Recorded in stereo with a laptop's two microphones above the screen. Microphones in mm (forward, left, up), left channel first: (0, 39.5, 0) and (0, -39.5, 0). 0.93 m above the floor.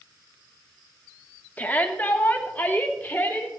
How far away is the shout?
About 1.8 m.